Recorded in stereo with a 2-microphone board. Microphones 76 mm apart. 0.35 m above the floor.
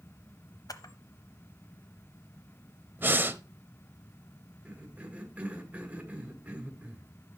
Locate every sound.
0.7 s a camera shutter: 60° left (ahead or behind), 0.9 m
3.0 s breathing: 30° right (ahead or behind), 0.6 m
4.7 s a cough: 20° right (ahead or behind), 1.7 m